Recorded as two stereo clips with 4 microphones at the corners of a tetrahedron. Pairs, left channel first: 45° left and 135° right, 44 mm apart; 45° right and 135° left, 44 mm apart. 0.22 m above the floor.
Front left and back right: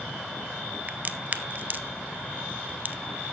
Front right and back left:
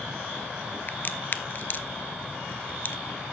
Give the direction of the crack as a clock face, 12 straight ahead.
3 o'clock.